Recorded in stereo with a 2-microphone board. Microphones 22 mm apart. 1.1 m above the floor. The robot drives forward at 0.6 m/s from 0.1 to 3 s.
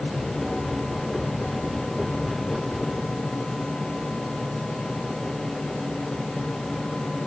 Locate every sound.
Only background noise.